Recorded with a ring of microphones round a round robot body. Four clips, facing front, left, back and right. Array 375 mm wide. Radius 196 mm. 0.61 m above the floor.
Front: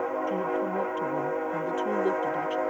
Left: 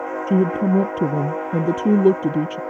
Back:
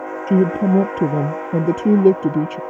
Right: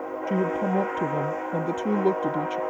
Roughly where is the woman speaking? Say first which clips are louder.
Left 6 dB, back 11 dB; behind left.